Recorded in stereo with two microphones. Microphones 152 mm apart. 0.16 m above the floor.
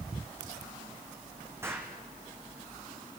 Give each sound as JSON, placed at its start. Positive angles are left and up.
{"t": 1.6, "sound": "an explosion", "side_deg": -15, "distance_m": 2.5}